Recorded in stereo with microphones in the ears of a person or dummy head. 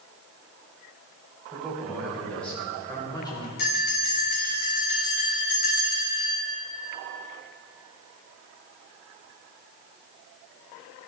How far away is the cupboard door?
I don't hear a cupboard door.